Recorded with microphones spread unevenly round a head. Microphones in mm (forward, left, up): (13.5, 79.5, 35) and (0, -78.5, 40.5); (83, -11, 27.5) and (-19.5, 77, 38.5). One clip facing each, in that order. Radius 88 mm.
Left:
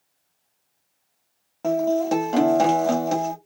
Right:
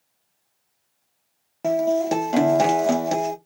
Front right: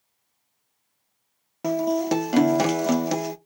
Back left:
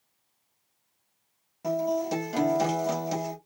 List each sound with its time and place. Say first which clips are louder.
1.6 s a guitar: right 1 dB, front right 4 dB; 20° right, 0.6 m